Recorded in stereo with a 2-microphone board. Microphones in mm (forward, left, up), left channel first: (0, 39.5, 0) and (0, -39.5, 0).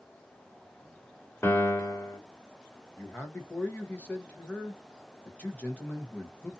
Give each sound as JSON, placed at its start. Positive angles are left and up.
{"t": 1.4, "sound": "a piano", "side_deg": 30, "distance_m": 0.6}
{"t": 3.0, "sound": "a man speaking", "side_deg": 15, "distance_m": 0.9}